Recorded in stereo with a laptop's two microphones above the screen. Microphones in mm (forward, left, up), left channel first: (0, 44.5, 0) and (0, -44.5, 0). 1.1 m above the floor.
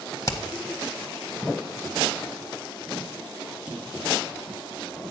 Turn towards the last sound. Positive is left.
turn(degrees=35)  # may be behind; listen again after turning